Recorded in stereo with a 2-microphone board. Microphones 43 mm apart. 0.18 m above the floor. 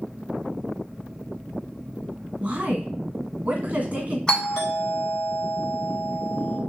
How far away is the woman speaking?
About 1.7 m.